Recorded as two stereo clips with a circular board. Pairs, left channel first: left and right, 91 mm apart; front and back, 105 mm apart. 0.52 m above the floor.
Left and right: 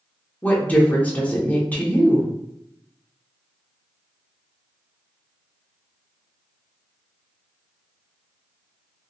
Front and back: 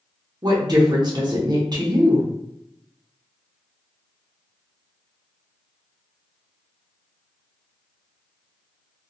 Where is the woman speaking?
155° left, 0.8 m.